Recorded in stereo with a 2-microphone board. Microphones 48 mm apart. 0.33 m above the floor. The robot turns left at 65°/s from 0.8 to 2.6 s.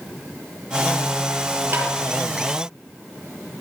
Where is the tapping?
50° right (ahead or behind), 6 m; by 1.9 s 40° right (ahead or behind), 6 m.